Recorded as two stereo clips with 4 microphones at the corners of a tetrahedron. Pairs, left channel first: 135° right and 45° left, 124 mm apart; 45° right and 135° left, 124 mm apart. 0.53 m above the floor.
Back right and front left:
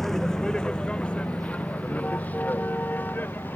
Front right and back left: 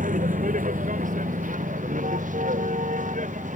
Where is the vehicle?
135° left; by 3.6 s 150° left.